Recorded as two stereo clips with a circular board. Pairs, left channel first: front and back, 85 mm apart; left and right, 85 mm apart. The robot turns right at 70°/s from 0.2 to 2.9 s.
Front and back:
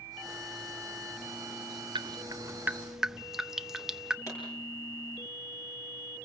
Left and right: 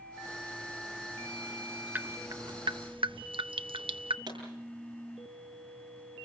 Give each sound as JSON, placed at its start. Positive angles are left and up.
{"t": 1.9, "sound": "dripping", "azimuth_deg": -160, "distance_m": 0.6}
{"t": 4.3, "sound": "a pop", "azimuth_deg": -50, "distance_m": 9.5}